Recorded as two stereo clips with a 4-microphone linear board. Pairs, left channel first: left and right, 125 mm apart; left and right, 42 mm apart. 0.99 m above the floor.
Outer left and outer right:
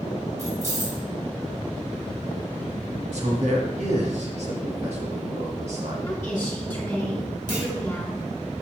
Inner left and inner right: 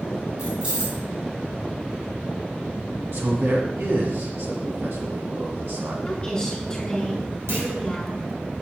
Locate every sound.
0.4 s keys jangling: 25° right (ahead or behind), 3 m
3.1 s a man speaking: 70° right (ahead or behind), 1.5 m
6.0 s a woman speaking: 15° left (ahead or behind), 4 m
7.5 s a clunk: 90° right, 2.5 m